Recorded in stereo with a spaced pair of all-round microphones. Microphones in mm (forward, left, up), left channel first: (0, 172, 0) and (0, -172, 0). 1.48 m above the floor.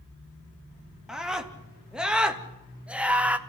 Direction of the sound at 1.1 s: Centre (ahead or behind).